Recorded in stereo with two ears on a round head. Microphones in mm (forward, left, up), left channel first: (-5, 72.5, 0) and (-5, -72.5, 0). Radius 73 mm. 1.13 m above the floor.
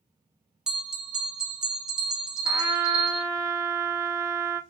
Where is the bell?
5° right (ahead or behind), 0.6 m.